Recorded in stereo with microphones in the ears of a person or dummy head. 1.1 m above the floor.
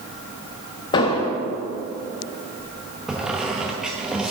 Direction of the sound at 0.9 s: 20° left (ahead or behind).